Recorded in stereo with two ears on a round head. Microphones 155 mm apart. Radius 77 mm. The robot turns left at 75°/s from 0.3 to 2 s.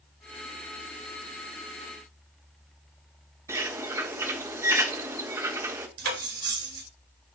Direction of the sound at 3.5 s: 15° right (ahead or behind).